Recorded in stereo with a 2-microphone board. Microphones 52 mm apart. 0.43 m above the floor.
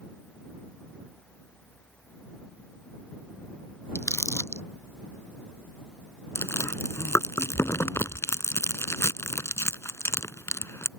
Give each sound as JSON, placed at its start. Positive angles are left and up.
{"t": 4.0, "sound": "crumpling", "side_deg": 60}
{"t": 6.3, "sound": "chewing", "side_deg": 55}